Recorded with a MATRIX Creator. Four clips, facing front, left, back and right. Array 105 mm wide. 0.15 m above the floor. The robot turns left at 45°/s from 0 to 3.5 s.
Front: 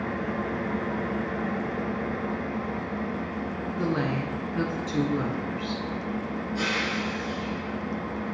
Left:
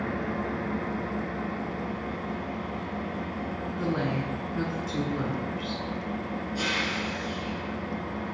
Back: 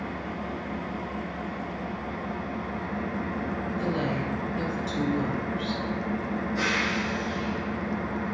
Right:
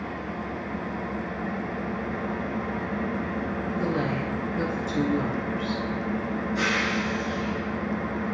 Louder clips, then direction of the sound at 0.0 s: Left 2 dB, front 4 dB; 45° left.